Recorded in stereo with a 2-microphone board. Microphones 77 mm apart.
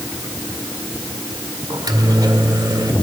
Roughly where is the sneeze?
No sneeze in this recording.